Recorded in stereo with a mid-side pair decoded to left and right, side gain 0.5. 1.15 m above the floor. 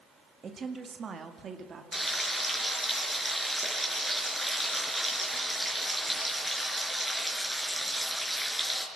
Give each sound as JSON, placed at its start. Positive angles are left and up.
{"t": 0.4, "sound": "a woman speaking", "azimuth_deg": -40, "distance_m": 1.7}
{"t": 1.9, "sound": "frying", "azimuth_deg": 0, "distance_m": 4.5}